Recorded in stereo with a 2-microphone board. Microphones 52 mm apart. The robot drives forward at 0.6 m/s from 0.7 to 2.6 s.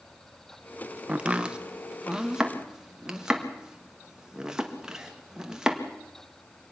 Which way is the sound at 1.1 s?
25° right (ahead or behind).